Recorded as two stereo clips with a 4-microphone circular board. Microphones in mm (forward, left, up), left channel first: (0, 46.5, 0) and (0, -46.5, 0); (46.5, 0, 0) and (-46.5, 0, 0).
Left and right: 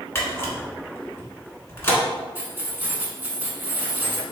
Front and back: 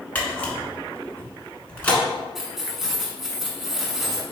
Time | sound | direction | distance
0.1 | a camera shutter | 60° left | 1.1 m
2.4 | keys jangling | 100° right | 0.9 m